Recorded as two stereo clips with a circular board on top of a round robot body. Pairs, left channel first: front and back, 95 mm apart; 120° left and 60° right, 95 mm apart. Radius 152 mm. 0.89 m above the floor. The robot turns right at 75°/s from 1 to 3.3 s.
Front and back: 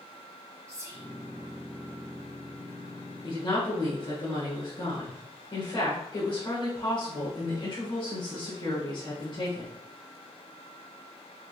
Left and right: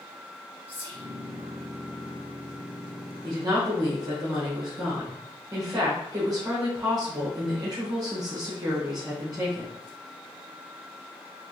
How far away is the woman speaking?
About 1.1 m.